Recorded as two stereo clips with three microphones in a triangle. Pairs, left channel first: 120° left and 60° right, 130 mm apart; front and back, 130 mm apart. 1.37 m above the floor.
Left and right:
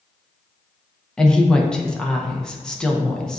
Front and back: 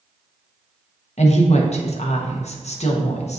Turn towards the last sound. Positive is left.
turn(degrees=35)